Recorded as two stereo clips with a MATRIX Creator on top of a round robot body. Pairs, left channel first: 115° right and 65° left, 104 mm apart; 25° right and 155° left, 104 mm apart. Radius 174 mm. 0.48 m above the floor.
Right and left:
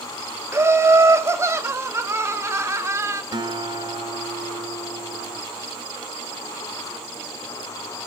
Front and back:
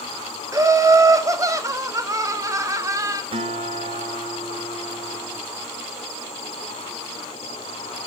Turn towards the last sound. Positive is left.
turn(degrees=120)